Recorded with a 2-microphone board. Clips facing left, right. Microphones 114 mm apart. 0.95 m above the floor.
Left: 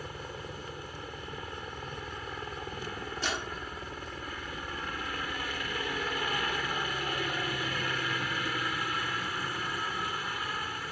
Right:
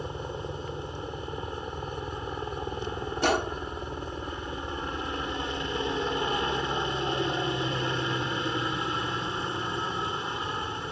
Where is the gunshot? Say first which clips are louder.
Right 11 dB; 60° right (ahead or behind).